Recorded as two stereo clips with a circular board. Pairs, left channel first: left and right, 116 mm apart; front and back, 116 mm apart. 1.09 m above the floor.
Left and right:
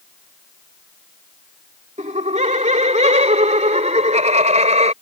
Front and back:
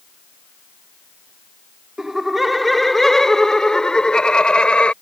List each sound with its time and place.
2.0 s laughter: 95° right; by 4.9 s 80° right